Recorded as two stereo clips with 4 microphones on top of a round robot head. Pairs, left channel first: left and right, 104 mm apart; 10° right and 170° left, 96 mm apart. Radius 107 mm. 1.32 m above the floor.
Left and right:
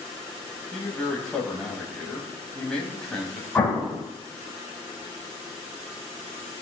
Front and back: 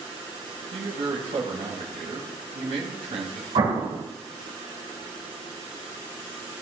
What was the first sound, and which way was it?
A man speaking, 175° left.